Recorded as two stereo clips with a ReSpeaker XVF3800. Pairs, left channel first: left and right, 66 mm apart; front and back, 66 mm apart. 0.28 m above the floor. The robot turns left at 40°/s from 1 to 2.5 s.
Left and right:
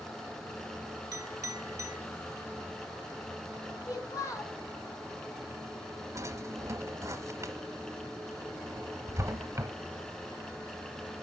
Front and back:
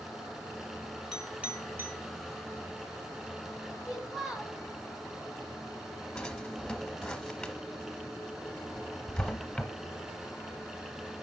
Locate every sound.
1.1 s a clink: 100° right, 2 m; by 2.0 s 135° right, 2 m
3.9 s a child speaking: 100° left, 1.6 m
6.2 s a drawer: 80° right, 0.9 m